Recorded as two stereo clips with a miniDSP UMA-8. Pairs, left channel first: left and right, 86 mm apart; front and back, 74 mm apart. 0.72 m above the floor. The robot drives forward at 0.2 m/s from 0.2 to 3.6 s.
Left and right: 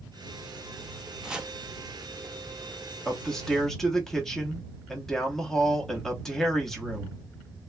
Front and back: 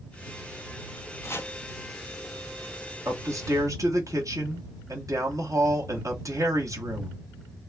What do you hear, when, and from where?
1.2 s chopping: 15° right, 0.5 m; by 1.5 s 20° right, 0.5 m
3.0 s a man speaking: 175° left, 0.9 m